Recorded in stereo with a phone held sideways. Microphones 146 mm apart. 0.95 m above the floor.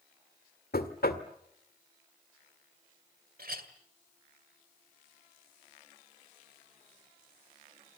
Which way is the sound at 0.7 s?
85° left.